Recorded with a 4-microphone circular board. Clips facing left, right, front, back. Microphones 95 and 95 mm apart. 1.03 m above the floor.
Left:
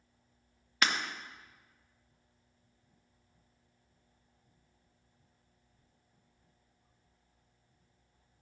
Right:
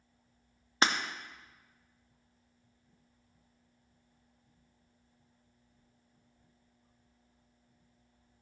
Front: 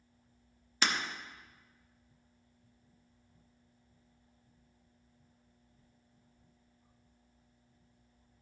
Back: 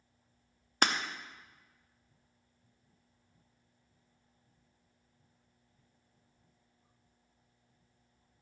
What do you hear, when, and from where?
0.8 s breaking glass: 145° right, 0.8 m